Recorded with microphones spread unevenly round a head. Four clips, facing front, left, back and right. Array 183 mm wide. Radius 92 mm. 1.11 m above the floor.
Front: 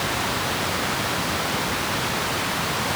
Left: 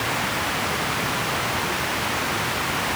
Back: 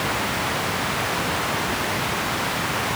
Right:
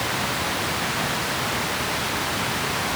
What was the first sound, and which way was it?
Only background noise.